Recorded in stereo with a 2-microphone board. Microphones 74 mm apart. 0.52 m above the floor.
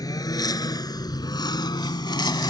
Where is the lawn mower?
60° left (ahead or behind); by 2.5 s 80° left.